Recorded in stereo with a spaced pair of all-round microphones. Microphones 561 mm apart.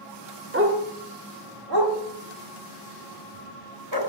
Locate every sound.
0.5 s a dog barking: 20° right (ahead or behind), 1.2 m; by 4.0 s 55° right (ahead or behind), 2.5 m